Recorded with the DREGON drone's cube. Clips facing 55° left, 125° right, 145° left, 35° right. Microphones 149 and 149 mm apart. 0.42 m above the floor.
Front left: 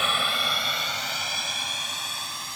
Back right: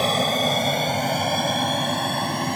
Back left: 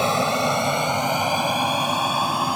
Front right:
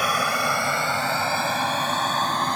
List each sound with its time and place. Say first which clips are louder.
0.0 s an aircraft: back right 9 dB, back left 4 dB; 160° right; by 2.6 s 135° right